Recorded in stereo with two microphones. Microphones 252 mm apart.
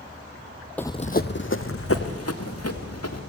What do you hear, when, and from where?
0.8 s running footsteps: 5° left (ahead or behind), 0.7 m; by 3.2 s 75° left (ahead or behind), 3.5 m